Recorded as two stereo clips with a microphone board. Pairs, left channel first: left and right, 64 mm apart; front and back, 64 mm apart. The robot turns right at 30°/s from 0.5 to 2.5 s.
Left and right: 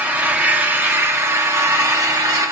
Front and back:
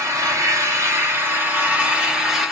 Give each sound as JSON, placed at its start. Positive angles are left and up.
{"t": 0.0, "sound": "an engine running", "azimuth_deg": -155, "distance_m": 1.2}